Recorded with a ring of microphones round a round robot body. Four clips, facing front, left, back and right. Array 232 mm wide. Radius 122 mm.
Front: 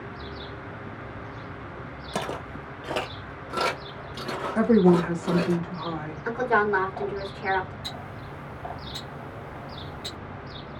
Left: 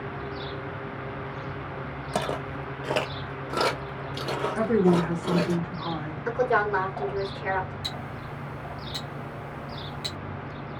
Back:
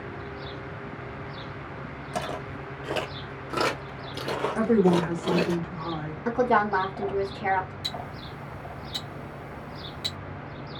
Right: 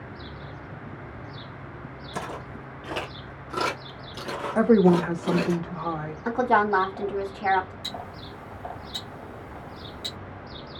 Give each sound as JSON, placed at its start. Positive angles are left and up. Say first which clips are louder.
{"t": 2.1, "sound": "footsteps", "louder": "left 6 dB, front 1 dB", "azimuth_deg": 70, "distance_m": 1.2}
{"t": 4.5, "sound": "a woman speaking", "louder": "right 4 dB, front 3 dB", "azimuth_deg": -80, "distance_m": 1.2}
{"t": 6.2, "sound": "a woman speaking", "louder": "right 2 dB, back 1 dB", "azimuth_deg": -125, "distance_m": 1.8}
{"t": 7.8, "sound": "ticking", "louder": "left 1 dB, back 1 dB", "azimuth_deg": 175, "distance_m": 1.6}